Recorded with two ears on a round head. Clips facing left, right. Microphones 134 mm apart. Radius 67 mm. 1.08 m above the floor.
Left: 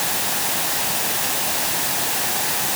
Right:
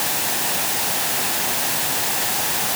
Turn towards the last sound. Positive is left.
No sound to turn to.